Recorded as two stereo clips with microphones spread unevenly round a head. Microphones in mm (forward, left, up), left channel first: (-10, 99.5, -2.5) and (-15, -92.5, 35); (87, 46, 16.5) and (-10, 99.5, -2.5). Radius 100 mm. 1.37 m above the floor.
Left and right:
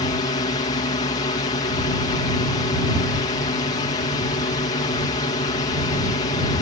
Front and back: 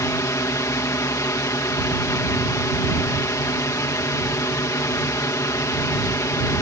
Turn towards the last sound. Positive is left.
turn(degrees=30)